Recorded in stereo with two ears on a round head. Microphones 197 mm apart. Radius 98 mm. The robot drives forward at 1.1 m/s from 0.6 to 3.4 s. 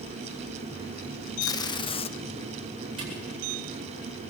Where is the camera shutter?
25° right (ahead or behind), 8.5 m.